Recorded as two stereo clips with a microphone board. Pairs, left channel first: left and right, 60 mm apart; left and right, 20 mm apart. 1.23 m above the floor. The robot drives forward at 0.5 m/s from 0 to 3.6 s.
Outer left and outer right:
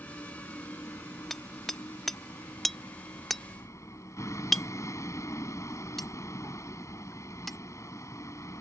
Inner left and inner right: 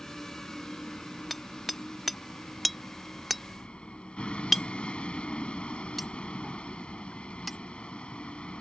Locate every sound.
0.0 s a vehicle: 45° left (ahead or behind); by 8.6 s 60° left (ahead or behind)
1.3 s hammering: 5° left (ahead or behind); by 7.6 s centre (ahead or behind)